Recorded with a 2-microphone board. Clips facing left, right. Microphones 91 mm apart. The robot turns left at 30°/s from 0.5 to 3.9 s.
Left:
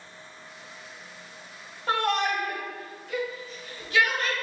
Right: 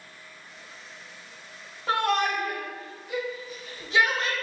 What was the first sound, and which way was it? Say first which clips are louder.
A shout: right 1 dB; centre (ahead or behind).